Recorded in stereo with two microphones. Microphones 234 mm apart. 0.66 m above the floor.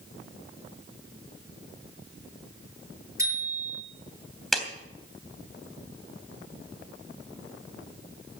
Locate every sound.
3.2 s a bicycle bell: 10° right (ahead or behind), 9 m
4.5 s a clap: centre (ahead or behind), 3 m